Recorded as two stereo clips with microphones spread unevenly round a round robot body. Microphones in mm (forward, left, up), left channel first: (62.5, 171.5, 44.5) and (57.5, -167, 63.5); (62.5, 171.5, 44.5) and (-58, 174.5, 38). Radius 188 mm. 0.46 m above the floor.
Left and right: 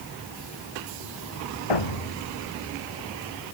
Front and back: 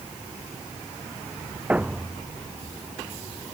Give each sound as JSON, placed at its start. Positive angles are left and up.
{"t": 1.7, "sound": "a thud", "azimuth_deg": 100}